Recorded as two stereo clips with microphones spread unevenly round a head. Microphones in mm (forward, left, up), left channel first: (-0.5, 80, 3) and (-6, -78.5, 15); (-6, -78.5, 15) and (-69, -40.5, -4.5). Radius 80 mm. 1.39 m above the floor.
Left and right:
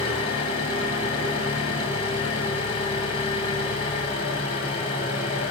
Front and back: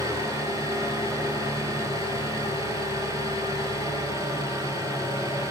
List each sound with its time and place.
0.0 s an engine running: 25° left, 9 m